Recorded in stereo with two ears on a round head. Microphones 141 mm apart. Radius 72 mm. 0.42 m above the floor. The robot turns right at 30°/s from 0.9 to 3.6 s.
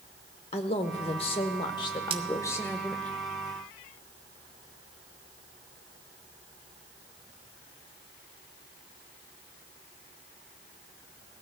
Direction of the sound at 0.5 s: 105° left.